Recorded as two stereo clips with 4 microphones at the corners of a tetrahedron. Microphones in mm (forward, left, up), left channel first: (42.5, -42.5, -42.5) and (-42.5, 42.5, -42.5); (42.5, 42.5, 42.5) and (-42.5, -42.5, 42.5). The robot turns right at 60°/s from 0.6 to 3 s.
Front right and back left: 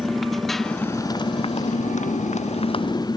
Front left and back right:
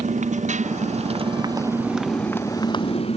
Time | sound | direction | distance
0.0 | a motorcycle | 135° right | ?